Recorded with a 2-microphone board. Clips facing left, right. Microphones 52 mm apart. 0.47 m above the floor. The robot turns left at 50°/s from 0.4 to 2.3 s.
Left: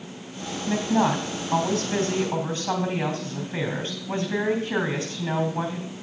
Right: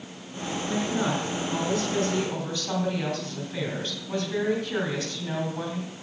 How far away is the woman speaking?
About 2.5 m.